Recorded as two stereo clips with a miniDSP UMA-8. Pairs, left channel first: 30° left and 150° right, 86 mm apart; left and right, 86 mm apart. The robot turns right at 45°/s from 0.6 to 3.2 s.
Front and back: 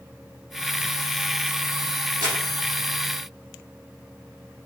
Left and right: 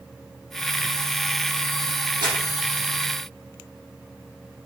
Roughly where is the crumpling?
Behind right.